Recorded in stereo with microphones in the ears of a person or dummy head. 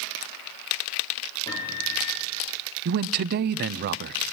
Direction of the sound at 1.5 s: 25° left (ahead or behind).